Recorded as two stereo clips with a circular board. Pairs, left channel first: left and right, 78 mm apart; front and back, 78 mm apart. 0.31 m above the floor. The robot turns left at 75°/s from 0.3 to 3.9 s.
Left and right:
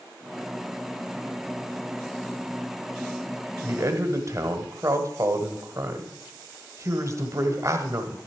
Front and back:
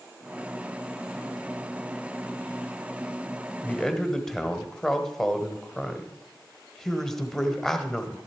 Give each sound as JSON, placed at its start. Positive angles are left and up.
{"t": 3.6, "sound": "a man speaking", "azimuth_deg": -65, "distance_m": 1.1}